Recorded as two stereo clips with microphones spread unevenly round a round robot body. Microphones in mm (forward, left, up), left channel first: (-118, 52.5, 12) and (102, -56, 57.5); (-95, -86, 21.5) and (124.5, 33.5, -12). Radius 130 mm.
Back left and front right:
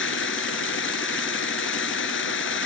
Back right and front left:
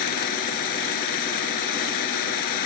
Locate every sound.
0.0 s running water: 160° right